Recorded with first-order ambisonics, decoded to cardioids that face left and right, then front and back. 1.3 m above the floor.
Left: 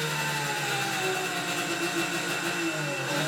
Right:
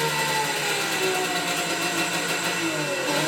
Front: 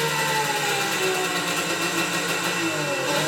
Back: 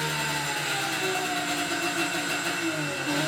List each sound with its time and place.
0.0 s an engine running: 35° right, 1.8 m